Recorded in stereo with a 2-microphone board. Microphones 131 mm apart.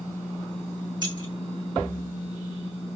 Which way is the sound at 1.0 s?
35° right (ahead or behind).